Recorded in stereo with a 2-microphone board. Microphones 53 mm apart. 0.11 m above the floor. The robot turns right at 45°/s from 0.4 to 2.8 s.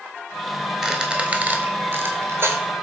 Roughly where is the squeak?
Centre.